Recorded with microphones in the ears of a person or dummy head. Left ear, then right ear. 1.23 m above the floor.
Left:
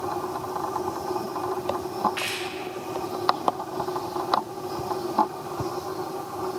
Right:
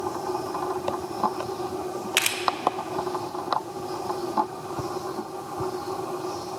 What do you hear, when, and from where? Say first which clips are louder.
2.2 s a camera shutter: right 5 dB; 60° right (ahead or behind), 0.6 m